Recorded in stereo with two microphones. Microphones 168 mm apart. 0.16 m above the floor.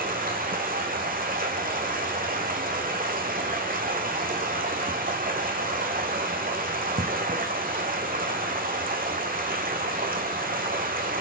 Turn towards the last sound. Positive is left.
turn(degrees=-60)  # may be behind; listen again after turning